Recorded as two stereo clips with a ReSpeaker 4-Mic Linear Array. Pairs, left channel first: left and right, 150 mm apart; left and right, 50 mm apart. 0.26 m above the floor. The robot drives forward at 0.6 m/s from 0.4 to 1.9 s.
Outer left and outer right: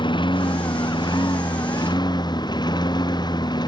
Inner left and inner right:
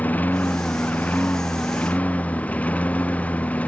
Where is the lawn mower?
35° left (ahead or behind); by 3.7 s 30° left (ahead or behind).